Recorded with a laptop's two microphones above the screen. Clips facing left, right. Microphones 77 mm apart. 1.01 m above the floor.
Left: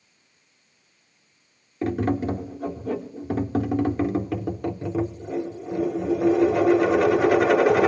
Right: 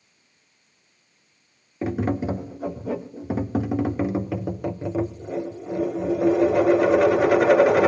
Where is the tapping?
10° right (ahead or behind), 0.7 m.